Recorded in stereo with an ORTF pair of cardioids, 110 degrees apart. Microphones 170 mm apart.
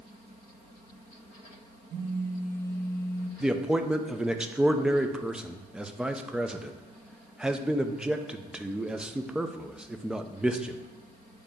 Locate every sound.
1.9 s a phone buzzing: 50° right, 1.3 m
3.4 s a man speaking: 5° right, 0.6 m